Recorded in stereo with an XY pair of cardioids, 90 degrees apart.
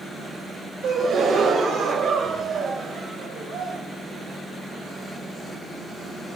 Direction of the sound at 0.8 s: 70° right.